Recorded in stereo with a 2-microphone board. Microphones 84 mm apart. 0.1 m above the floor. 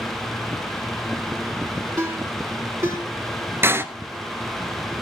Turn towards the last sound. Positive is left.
turn(degrees=-30)  # may be behind; listen again after turning